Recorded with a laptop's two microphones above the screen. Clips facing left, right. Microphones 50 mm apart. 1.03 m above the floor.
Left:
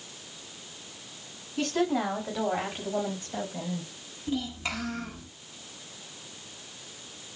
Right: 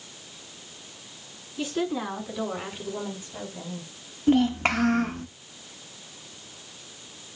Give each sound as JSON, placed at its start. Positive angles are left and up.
{"t": 1.6, "sound": "a woman speaking", "side_deg": 55, "distance_m": 6.0}
{"t": 4.3, "sound": "a child speaking", "side_deg": -50, "distance_m": 0.7}